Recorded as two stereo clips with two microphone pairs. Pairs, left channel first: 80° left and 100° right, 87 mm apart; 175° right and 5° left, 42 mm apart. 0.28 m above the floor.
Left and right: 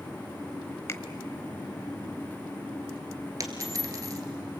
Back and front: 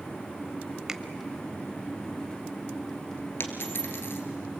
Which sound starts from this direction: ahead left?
A finger snap, at 0.9 s.